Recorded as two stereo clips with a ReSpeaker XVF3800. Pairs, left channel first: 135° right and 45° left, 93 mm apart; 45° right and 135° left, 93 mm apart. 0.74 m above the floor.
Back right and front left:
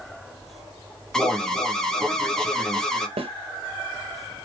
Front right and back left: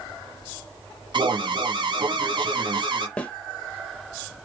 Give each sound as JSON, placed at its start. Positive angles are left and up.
{"t": 1.1, "sound": "an alarm", "azimuth_deg": 140, "distance_m": 0.6}
{"t": 3.2, "sound": "a snare drum", "azimuth_deg": 35, "distance_m": 0.7}